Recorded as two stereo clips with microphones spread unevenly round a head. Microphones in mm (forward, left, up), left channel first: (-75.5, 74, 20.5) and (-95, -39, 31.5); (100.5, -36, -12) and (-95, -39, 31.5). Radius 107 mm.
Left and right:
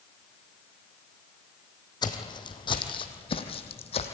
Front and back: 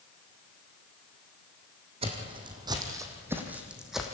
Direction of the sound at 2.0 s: 130° left.